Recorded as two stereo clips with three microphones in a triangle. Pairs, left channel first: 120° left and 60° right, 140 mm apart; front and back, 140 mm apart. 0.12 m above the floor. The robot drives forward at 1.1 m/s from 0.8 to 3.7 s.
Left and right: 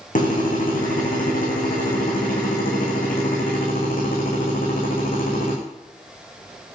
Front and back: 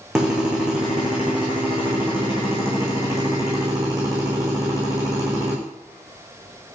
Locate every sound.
0.1 s a drill: 95° left, 9 m; by 5.5 s 115° left, 10 m